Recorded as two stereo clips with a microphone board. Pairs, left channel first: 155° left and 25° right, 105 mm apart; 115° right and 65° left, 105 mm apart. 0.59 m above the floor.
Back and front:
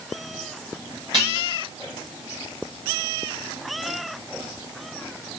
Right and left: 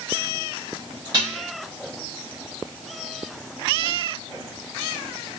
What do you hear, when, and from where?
1.1 s dishes clattering: 20° left, 6.5 m